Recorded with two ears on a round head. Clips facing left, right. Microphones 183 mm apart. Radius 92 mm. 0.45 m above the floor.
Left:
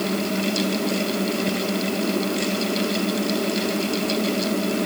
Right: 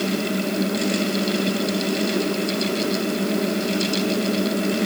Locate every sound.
Only background noise.